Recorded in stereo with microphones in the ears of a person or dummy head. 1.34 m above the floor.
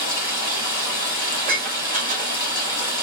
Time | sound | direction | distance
0.0 | running water | 55° left (ahead or behind) | 2 m
1.3 | dishes clattering | 40° right (ahead or behind) | 3 m